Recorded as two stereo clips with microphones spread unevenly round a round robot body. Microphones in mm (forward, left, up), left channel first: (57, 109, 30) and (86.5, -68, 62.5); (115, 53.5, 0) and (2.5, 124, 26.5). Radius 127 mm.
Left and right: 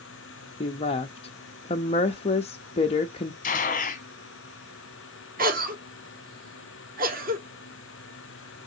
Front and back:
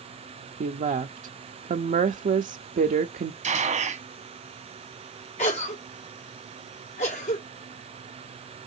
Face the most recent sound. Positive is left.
turn(degrees=-40)